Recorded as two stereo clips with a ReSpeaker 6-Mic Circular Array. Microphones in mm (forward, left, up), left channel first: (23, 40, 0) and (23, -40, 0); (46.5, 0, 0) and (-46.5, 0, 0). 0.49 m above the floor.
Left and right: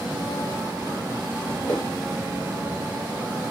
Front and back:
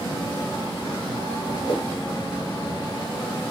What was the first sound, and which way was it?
A whoosh, 15° left.